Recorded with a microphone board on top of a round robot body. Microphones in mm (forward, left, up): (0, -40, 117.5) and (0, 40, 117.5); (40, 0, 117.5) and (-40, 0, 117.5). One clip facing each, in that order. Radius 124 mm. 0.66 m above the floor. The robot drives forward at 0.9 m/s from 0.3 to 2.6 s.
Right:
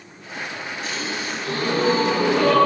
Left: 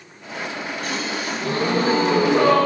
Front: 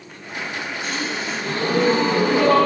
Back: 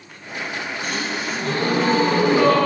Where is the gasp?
130° left, 1.7 m; by 2.6 s 155° left, 3 m.